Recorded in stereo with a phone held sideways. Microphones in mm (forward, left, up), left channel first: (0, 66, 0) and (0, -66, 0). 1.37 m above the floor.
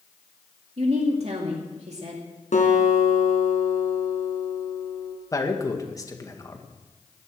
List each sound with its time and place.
0.8 s a woman speaking: 55° right (ahead or behind), 2 m
2.5 s a guitar: 65° left (ahead or behind), 3 m
5.3 s a man speaking: 25° left (ahead or behind), 2.0 m